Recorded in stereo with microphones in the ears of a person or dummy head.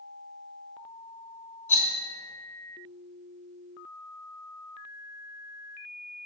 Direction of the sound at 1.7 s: 10° left (ahead or behind).